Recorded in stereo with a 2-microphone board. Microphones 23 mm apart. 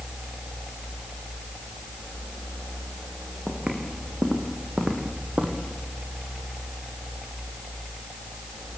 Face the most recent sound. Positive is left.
turn(degrees=-60)  # may be behind; listen again after turning